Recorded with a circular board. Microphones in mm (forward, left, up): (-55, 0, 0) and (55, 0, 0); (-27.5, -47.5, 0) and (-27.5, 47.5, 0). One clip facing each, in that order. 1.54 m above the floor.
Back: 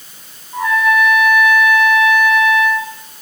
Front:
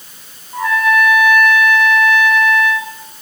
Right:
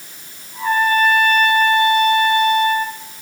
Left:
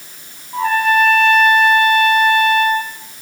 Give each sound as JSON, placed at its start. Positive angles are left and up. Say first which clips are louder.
{"t": 0.5, "sound": "a trumpet", "louder": "even, left 2 dB", "azimuth_deg": 90, "distance_m": 4.0}